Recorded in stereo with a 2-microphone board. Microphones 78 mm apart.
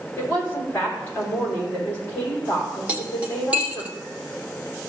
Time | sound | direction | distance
0.2 | a woman speaking | 30° left (ahead or behind) | 4 m
2.9 | cutlery clinking | 15° right (ahead or behind) | 1.1 m